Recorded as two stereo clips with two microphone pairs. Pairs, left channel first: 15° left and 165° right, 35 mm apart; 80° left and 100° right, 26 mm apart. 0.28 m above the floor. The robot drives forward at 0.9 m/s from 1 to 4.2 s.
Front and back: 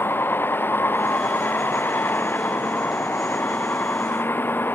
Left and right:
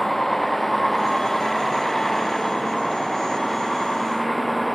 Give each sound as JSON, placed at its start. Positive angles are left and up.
{"t": 0.0, "sound": "a vehicle", "azimuth_deg": 0}